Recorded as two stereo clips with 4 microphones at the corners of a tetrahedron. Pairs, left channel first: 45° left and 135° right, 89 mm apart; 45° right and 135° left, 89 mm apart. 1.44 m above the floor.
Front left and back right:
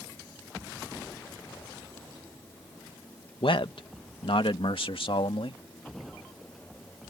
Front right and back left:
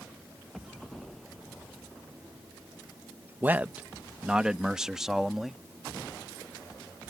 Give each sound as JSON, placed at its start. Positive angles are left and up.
{"t": 3.4, "sound": "a man speaking", "azimuth_deg": 65}